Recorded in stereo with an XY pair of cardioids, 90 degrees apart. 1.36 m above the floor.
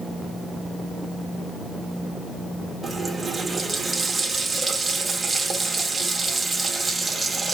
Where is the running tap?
20° right, 1.4 m.